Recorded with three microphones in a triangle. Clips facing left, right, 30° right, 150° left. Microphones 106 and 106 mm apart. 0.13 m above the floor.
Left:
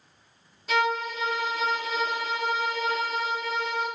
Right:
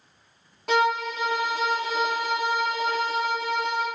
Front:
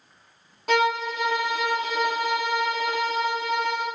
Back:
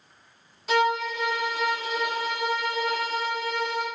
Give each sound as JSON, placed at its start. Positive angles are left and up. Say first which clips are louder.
{"t": 0.7, "sound": "a violin", "louder": "right 3 dB, front 1 dB", "azimuth_deg": -65, "distance_m": 3.0}